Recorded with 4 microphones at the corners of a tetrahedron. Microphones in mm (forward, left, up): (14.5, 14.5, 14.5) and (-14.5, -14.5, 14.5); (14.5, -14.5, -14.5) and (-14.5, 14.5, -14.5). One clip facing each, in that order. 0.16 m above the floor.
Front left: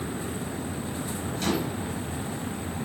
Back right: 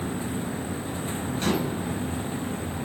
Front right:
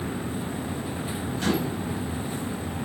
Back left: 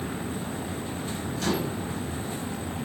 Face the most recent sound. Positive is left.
turn(degrees=-90)